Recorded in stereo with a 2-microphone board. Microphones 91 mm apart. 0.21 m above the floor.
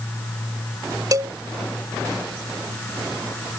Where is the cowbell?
40° right (ahead or behind).